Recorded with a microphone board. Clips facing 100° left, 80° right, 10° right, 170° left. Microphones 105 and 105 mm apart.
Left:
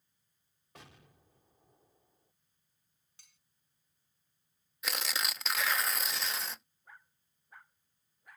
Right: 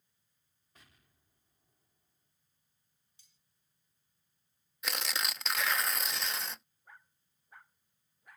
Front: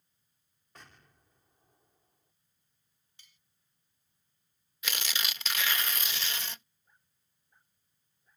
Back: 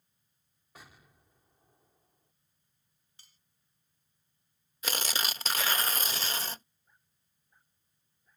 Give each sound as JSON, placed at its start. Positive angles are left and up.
{"t": 0.8, "sound": "an explosion", "azimuth_deg": 85}
{"t": 3.2, "sound": "cutlery clinking", "azimuth_deg": 115}
{"t": 4.8, "sound": "tearing paper", "azimuth_deg": -170}